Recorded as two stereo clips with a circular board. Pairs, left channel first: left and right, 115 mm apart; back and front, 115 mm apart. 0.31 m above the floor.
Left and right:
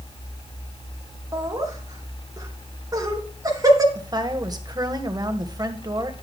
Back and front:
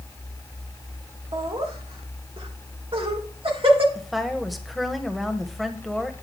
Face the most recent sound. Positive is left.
turn(degrees=-90)